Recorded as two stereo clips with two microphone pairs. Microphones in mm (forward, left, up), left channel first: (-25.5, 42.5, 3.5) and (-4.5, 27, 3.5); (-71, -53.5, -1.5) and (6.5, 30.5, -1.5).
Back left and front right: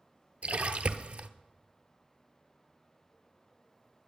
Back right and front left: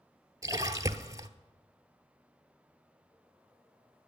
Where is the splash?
15° right, 0.7 m.